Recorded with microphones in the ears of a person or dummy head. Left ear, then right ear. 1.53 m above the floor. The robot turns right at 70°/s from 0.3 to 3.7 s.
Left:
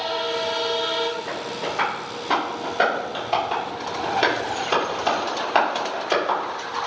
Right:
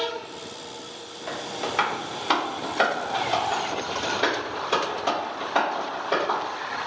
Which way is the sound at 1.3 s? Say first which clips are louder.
Left 2 dB; 60° right (ahead or behind).